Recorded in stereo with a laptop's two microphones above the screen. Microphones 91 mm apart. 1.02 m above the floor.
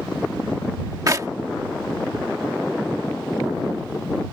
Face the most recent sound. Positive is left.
turn(degrees=-40)  # may be behind; listen again after turning